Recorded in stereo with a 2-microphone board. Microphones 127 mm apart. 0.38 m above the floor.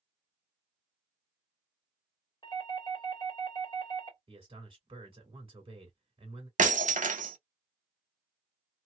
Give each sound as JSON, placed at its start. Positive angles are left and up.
{"t": 2.4, "sound": "a doorbell", "side_deg": 35, "distance_m": 1.7}
{"t": 4.3, "sound": "a man speaking", "side_deg": -40, "distance_m": 1.9}
{"t": 6.6, "sound": "breaking glass", "side_deg": -85, "distance_m": 0.6}